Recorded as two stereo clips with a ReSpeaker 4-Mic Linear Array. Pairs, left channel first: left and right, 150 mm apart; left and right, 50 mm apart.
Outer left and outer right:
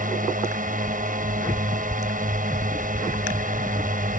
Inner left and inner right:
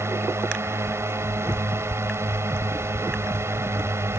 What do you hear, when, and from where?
0.0 s a drone: 65° right (ahead or behind)